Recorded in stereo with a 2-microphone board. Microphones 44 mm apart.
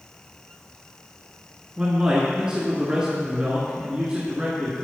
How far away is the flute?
No flute in this recording.